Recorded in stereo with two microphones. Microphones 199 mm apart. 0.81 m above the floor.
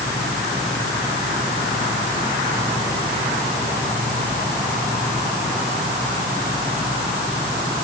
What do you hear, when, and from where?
Only background noise.